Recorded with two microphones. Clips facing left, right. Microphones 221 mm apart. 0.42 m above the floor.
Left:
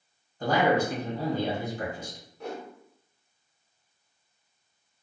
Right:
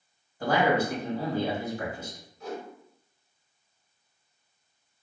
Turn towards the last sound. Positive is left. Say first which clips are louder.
# even
turn(degrees=65)  # may be behind; listen again after turning